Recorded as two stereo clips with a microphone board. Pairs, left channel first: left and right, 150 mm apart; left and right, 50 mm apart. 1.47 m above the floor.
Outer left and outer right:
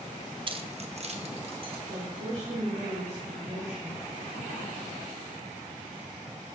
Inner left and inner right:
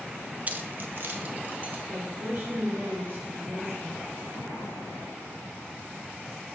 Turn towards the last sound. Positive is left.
turn(degrees=-50)  # may be behind; listen again after turning